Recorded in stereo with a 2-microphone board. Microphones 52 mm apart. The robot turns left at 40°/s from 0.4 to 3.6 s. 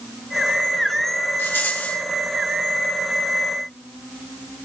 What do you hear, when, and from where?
1.4 s a rattle: 45° left (ahead or behind), 4 m; by 2.0 s 25° left (ahead or behind), 4 m